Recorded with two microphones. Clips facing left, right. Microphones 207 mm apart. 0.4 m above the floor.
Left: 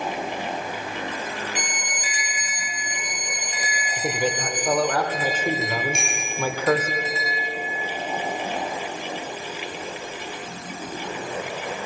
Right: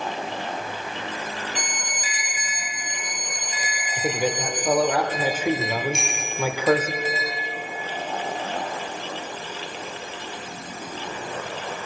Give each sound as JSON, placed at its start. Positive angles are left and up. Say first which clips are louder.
{"t": 1.6, "sound": "a violin", "louder": "left 1 dB", "side_deg": 5, "distance_m": 0.8}
{"t": 4.0, "sound": "a man speaking", "louder": "right 1 dB", "side_deg": -10, "distance_m": 1.4}
{"t": 5.9, "sound": "a bicycle bell", "louder": "even", "side_deg": 55, "distance_m": 7.0}